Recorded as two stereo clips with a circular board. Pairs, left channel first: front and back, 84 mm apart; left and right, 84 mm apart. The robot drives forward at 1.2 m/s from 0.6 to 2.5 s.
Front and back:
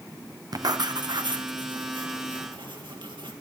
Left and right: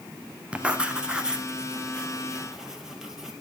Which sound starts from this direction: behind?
Writing, at 0.5 s.